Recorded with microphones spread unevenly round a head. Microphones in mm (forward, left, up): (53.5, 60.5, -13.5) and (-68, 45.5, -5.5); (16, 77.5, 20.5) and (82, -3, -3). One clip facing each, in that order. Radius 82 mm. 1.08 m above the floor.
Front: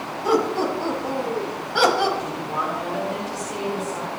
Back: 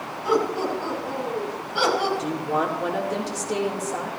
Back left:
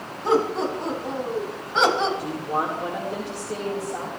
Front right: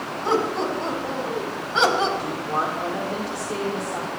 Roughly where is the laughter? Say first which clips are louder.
Front 2 dB, back left 1 dB; ahead left.